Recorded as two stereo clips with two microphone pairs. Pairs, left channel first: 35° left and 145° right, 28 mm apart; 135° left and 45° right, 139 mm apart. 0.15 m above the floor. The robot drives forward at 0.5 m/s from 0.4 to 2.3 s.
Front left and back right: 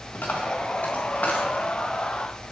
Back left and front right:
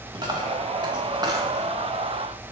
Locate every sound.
0.1 s a dropped coin: 15° left, 2.5 m; by 1.6 s 20° left, 1.7 m